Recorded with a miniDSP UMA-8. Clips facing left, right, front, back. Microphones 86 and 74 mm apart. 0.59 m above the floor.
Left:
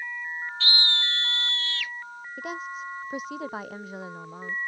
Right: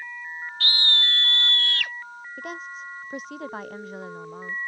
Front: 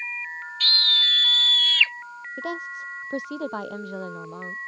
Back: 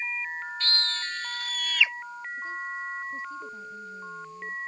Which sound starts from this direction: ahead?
A woman speaking, at 2.4 s.